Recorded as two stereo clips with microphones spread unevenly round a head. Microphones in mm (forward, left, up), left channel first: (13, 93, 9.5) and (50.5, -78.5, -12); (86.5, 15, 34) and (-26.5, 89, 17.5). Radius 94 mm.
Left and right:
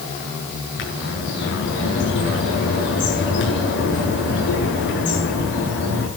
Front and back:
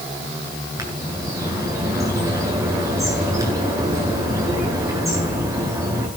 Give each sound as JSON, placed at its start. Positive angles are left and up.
{"t": 0.8, "sound": "a bird", "azimuth_deg": 80, "distance_m": 9.5}